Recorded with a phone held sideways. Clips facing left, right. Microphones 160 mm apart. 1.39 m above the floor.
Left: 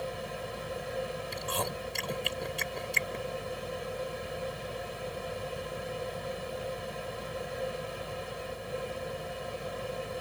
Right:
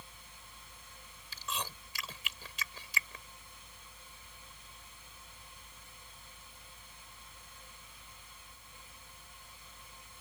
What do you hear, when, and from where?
0.0 s a machine running: 80° left
1.3 s chewing: 50° left (ahead or behind)